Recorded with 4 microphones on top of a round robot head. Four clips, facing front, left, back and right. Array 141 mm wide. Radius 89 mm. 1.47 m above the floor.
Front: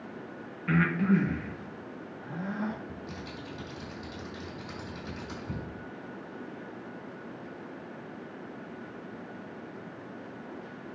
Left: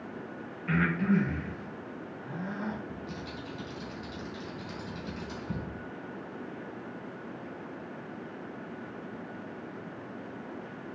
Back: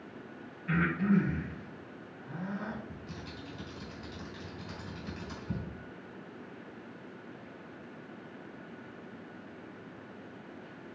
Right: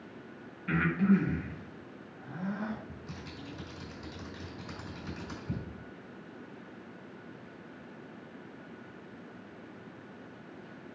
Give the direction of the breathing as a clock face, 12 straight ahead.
1 o'clock.